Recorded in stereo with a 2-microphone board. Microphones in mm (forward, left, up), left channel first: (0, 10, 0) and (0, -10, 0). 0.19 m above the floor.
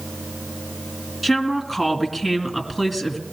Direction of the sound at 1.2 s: 15° right (ahead or behind).